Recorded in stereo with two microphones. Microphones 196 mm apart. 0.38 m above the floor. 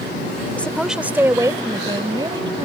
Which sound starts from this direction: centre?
A woman speaking, at 0.6 s.